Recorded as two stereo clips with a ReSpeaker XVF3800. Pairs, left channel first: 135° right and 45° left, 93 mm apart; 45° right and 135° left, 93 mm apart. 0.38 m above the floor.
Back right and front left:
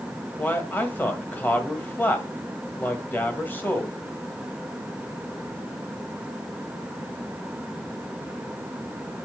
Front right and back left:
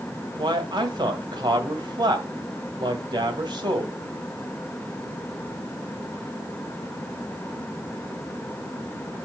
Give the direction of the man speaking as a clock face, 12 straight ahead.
7 o'clock.